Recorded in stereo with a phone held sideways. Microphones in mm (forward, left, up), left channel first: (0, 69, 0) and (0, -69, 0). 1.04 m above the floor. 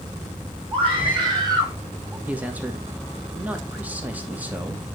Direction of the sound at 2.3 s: 10° right (ahead or behind).